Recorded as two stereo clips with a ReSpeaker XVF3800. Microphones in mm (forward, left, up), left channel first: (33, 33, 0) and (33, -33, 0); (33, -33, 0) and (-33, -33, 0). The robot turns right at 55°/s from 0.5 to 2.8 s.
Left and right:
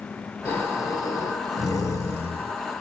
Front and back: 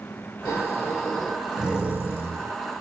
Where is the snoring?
40° left, 3 m; by 2.6 s 155° left, 3 m.